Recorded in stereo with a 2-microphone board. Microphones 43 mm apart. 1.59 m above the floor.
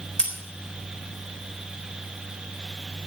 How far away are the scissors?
About 4 m.